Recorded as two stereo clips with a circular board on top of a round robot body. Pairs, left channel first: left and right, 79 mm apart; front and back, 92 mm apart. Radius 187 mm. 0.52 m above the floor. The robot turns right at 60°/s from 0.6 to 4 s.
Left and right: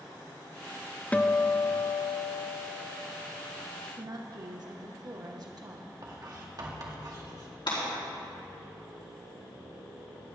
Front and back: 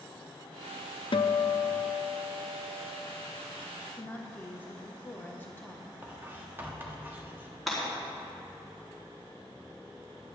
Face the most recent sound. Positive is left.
turn(degrees=90)